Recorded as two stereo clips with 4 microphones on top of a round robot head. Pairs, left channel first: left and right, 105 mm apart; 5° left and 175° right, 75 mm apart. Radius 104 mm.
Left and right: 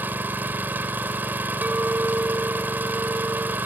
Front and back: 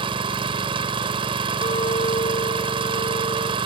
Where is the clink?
15° right.